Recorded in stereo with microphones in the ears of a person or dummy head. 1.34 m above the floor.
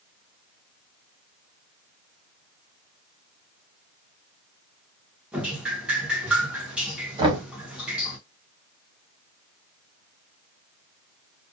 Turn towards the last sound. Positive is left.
turn(degrees=-25)  # may be behind; listen again after turning